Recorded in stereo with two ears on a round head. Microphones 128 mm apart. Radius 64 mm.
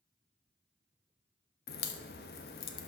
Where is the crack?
75° left (ahead or behind), 1.0 m.